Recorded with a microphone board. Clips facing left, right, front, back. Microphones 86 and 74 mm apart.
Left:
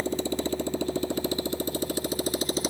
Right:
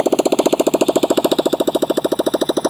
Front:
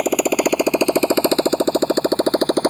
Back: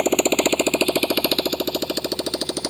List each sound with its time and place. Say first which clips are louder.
0.0 s a motorcycle: right 15 dB, front 1 dB; 85° right; by 2.7 s 50° right